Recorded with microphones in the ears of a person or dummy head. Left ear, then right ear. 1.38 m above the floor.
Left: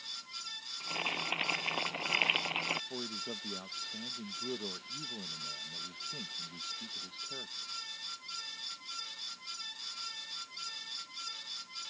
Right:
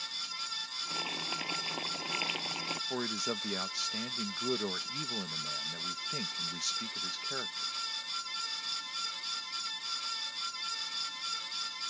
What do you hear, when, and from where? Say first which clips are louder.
0.8 s boiling: left 3 dB; 30° left (ahead or behind)
2.9 s a man speaking: right 5 dB; 65° right (ahead or behind)